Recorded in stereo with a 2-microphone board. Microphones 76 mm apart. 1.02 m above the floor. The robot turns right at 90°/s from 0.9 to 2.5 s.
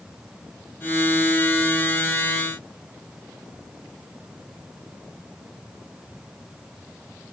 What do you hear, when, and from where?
Only background noise.